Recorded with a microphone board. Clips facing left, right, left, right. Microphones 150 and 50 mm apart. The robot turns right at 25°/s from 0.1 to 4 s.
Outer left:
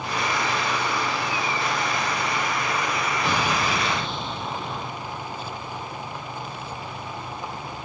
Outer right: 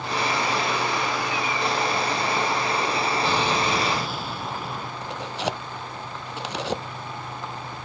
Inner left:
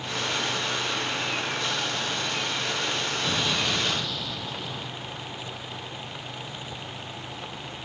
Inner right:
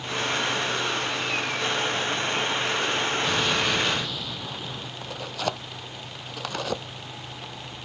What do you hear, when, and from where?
3.2 s an explosion: 15° left (ahead or behind); by 4.9 s 5° right (ahead or behind)
5.0 s tearing paper: 80° right